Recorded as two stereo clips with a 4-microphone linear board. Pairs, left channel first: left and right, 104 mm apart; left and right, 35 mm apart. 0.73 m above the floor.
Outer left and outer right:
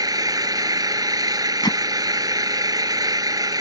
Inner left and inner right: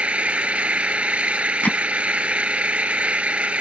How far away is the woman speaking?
No woman speaking in this recording.